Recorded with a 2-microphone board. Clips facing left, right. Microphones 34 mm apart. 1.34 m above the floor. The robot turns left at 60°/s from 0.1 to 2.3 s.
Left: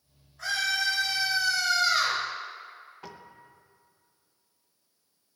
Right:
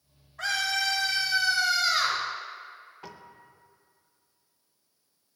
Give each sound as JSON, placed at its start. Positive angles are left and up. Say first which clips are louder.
{"t": 0.4, "sound": "a scream", "louder": "even", "azimuth_deg": -80, "distance_m": 5.5}
{"t": 3.0, "sound": "a piano", "louder": "even", "side_deg": 0, "distance_m": 0.8}